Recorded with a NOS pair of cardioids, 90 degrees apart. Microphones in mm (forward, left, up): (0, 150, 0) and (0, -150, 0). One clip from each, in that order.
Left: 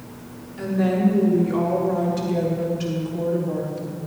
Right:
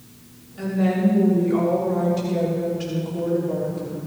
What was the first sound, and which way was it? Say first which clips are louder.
A woman speaking: left 1 dB; 20° left.